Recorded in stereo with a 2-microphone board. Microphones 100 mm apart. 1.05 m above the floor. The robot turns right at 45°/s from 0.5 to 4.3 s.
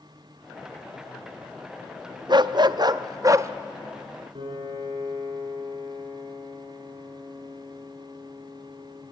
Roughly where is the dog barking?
Right.